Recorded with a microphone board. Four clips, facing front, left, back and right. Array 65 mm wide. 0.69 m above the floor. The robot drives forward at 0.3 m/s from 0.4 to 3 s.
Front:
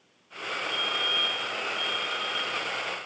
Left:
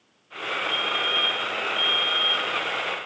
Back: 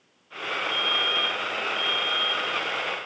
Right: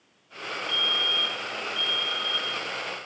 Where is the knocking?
No knocking in this recording.